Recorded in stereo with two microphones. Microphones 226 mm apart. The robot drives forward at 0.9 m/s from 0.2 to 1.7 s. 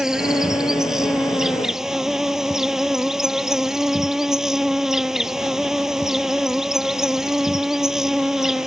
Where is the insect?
5° right (ahead or behind); by 8.7 s centre (ahead or behind).